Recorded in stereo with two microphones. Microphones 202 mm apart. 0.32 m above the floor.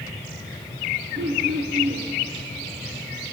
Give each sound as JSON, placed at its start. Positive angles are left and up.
{"t": 1.1, "sound": "throat clearing", "side_deg": -60, "distance_m": 3.0}